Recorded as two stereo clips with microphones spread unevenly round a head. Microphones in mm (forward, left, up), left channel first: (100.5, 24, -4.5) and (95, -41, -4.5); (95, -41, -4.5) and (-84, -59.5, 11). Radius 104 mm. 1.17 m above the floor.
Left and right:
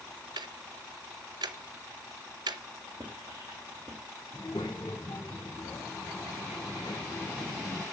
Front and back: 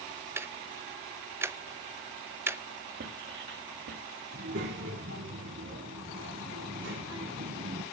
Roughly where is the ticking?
Right.